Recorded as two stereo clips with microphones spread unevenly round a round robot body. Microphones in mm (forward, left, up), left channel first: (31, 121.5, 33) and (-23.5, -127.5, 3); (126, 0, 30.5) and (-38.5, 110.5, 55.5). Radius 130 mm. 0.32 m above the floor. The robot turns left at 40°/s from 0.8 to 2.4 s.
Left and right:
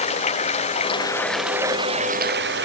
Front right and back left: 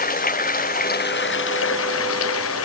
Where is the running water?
10° left; by 2.7 s 55° right.